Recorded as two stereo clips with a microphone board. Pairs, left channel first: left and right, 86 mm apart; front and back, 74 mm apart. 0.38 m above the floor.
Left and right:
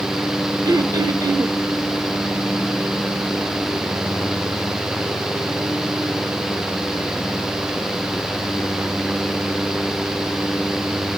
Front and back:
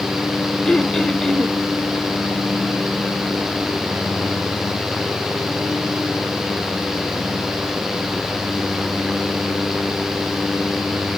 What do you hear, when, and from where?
0.7 s throat clearing: 80° right, 0.8 m